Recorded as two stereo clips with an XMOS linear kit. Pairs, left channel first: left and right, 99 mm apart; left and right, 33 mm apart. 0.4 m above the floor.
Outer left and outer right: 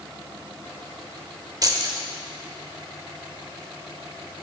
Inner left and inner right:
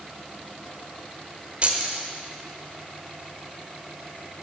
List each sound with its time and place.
1.6 s keys jangling: 40° right (ahead or behind), 1.0 m